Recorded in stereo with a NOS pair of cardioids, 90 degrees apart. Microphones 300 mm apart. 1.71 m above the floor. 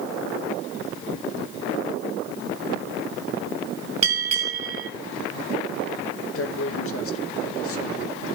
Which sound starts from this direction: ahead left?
A man speaking, at 6.3 s.